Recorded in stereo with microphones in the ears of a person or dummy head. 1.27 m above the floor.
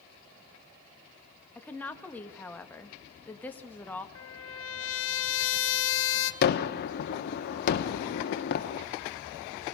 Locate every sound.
1.6 s a woman speaking: 5° left (ahead or behind), 1.5 m
4.2 s a trumpet: 70° left (ahead or behind), 1.3 m
6.4 s a gunshot: 50° left (ahead or behind), 1.2 m